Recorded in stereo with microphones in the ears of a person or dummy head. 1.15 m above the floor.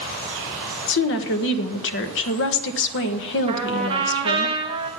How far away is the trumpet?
About 1.5 m.